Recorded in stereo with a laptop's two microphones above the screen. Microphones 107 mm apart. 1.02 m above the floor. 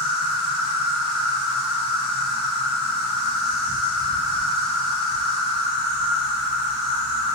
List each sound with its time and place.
0.0 s an insect: centre (ahead or behind), 1.3 m